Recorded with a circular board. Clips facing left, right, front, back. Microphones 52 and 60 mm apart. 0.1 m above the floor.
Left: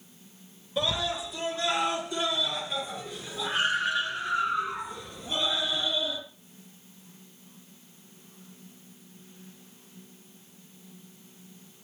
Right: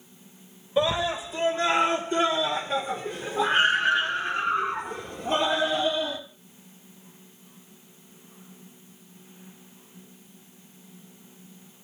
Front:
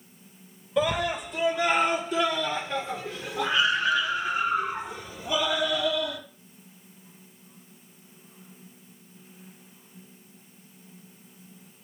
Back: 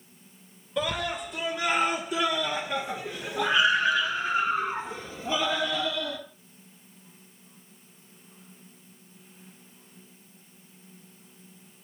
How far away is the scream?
About 1.8 m.